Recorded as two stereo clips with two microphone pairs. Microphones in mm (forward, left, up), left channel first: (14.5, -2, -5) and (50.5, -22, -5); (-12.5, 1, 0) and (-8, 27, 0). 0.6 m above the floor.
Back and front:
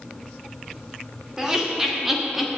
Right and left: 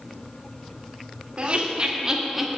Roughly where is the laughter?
Ahead left.